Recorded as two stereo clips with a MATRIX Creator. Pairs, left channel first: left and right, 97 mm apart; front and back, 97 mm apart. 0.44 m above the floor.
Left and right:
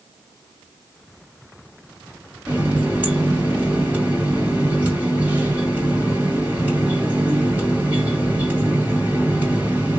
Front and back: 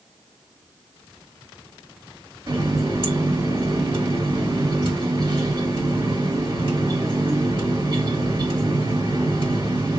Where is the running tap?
160° right, 1.7 m.